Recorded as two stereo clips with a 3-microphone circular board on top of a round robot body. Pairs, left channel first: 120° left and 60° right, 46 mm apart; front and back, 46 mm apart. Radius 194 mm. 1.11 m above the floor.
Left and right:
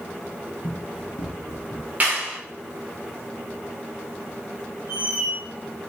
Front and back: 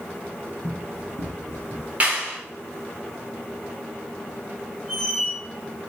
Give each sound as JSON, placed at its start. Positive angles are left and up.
{"t": 0.6, "sound": "running footsteps", "azimuth_deg": 150, "distance_m": 2.5}
{"t": 2.0, "sound": "a clap", "azimuth_deg": -120, "distance_m": 3.5}
{"t": 4.9, "sound": "a squeak", "azimuth_deg": -90, "distance_m": 5.0}